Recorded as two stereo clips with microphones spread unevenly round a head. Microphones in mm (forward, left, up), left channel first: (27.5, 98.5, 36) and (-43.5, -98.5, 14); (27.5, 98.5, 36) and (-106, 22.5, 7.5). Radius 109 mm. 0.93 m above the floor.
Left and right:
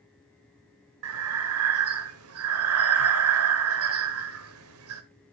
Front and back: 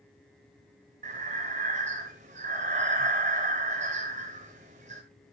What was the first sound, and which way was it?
Breathing, 85° right.